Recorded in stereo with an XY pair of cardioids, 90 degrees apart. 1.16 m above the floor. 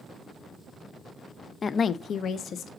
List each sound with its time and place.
1.6 s a woman speaking: 40° left, 0.5 m; by 2.7 s 75° left, 1.2 m